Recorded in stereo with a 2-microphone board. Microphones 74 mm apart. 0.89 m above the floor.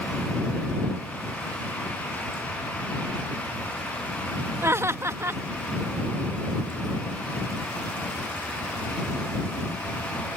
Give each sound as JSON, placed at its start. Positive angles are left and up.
{"t": 4.6, "sound": "laughter", "side_deg": -35}